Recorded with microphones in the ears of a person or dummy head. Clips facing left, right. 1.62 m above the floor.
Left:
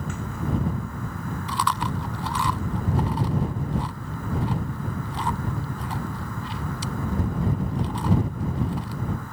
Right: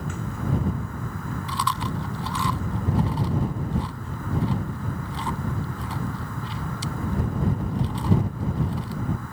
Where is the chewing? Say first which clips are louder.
Left 2 dB; 55° left (ahead or behind).